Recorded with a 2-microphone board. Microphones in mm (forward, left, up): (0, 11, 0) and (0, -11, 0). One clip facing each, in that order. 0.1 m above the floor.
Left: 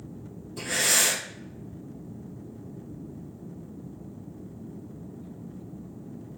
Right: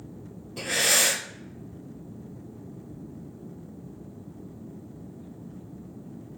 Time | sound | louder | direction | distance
0.6 | breathing | right 1 dB | 35° right (ahead or behind) | 2 m